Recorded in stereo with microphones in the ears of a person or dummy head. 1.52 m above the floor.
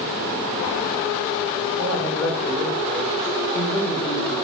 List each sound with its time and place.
1.8 s a man speaking: 5° left (ahead or behind), 1.9 m